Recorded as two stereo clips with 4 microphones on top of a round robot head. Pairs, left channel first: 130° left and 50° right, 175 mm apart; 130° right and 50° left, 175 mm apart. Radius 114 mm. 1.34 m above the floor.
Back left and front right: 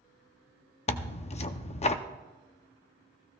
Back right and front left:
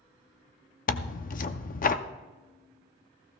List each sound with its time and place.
0.9 s tearing paper: 175° right, 0.6 m